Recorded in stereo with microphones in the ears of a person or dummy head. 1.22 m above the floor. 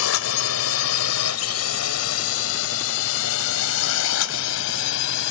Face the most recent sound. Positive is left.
turn(degrees=70)  # may be behind; listen again after turning